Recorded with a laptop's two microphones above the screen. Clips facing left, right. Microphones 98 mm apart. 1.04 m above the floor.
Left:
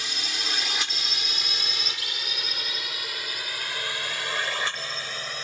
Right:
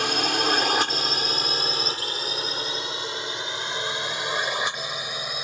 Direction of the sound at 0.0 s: 60° right (ahead or behind).